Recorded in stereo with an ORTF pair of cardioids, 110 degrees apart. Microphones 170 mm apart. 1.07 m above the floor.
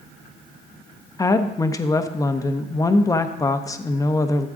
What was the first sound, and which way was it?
A woman speaking, 20° left.